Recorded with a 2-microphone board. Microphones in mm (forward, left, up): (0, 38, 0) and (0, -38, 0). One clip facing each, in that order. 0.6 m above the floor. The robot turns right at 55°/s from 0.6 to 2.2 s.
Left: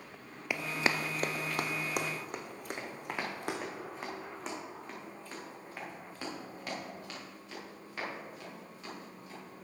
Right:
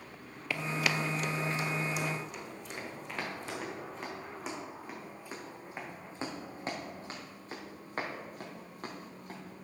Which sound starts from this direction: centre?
Running footsteps, at 0.5 s.